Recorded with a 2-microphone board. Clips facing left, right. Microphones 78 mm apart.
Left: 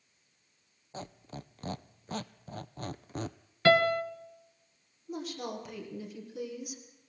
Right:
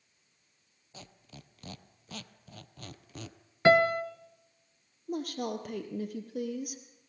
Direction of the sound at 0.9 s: 35° left (ahead or behind).